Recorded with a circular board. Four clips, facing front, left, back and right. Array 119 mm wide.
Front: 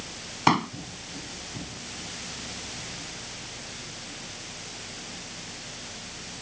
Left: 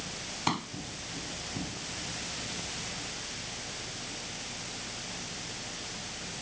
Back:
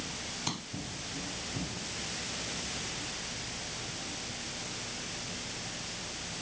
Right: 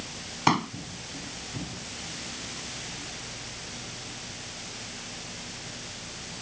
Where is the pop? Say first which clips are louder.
Right 8 dB, front 20 dB; 30° right.